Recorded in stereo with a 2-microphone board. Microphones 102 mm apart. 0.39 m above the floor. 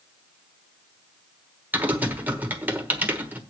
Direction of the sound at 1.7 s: 15° right (ahead or behind).